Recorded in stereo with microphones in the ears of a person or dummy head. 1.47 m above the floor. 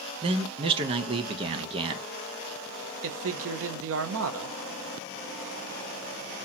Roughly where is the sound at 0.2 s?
Right.